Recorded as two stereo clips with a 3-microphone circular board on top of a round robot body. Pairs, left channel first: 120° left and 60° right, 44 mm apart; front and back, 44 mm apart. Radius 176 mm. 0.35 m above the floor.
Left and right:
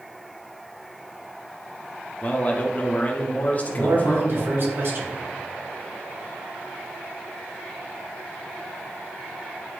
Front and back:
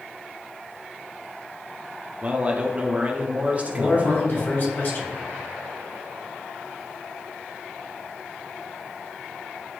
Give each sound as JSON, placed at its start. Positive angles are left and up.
{"t": 2.2, "sound": "a man speaking", "azimuth_deg": 145, "distance_m": 1.3}
{"t": 3.7, "sound": "a man speaking", "azimuth_deg": -35, "distance_m": 3.0}